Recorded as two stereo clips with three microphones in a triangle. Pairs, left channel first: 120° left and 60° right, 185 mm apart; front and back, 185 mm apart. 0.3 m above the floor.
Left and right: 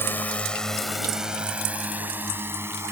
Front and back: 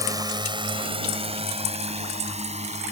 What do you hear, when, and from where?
0.0 s a drone: 170° left; by 2.9 s 135° right